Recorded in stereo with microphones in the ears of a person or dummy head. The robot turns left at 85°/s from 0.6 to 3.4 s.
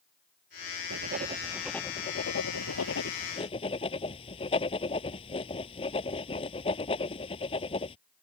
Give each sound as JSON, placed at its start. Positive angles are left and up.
{"t": 0.9, "sound": "writing", "side_deg": -65}